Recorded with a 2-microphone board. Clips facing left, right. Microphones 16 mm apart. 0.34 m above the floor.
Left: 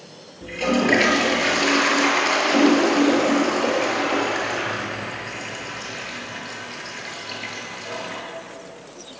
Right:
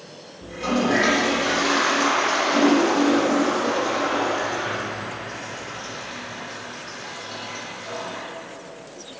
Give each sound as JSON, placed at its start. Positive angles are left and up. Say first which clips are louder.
{"t": 0.4, "sound": "a toilet flushing", "louder": "left 2 dB", "side_deg": 70, "distance_m": 6.5}